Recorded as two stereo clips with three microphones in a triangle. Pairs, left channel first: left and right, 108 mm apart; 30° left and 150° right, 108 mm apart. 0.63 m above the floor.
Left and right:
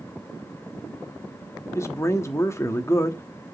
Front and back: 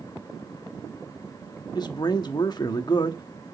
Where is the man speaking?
40° left, 1.0 m.